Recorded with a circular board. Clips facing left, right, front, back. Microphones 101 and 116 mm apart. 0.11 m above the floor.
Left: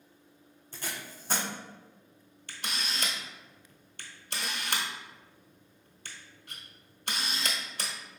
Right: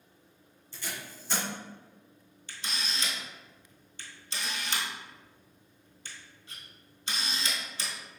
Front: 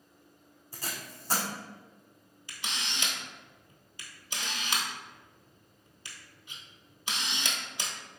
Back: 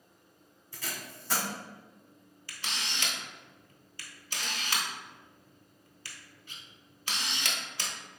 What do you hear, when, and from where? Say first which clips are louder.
0.7 s tape being pulled: left 1 dB, front 1 dB; 50° left, 1.3 m
2.5 s a camera shutter: left 1 dB, even; 65° left, 0.8 m